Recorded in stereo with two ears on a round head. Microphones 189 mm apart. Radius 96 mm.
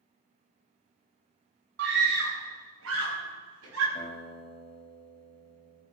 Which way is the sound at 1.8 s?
55° right (ahead or behind).